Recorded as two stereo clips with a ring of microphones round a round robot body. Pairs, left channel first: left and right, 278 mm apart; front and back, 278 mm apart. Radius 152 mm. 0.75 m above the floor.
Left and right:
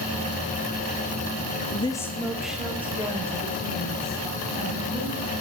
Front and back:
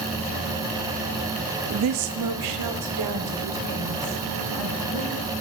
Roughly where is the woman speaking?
Behind left.